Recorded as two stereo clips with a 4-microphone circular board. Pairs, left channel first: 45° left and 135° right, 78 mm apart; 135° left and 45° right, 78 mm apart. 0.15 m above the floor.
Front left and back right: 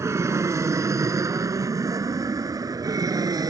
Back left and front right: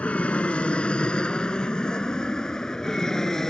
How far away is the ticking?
No ticking in this recording.